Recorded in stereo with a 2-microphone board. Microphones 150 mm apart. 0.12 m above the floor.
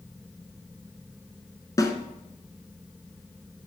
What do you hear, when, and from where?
1.8 s a snare drum: 25° left (ahead or behind), 0.7 m